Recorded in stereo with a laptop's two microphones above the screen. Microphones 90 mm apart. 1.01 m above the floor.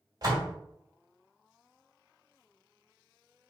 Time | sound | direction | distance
0.2 | a door slam | 45° right (ahead or behind) | 1.4 m